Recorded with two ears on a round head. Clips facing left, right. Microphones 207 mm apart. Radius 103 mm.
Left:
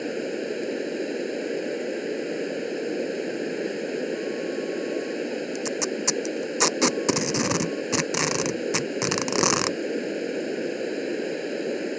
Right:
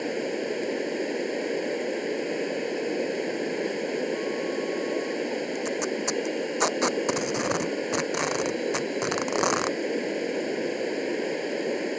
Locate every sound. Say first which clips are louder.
0.0 s running water: even; 10° left (ahead or behind)
5.5 s tape being pulled: even; 45° left (ahead or behind)